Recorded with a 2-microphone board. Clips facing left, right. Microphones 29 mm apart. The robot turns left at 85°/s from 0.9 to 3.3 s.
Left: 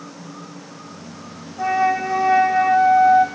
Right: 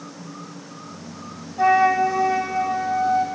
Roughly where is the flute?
Behind right.